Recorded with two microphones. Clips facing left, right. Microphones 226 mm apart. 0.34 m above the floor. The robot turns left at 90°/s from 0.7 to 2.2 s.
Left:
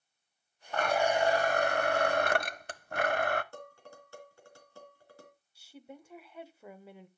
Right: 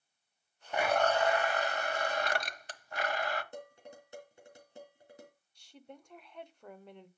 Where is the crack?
No crack in this recording.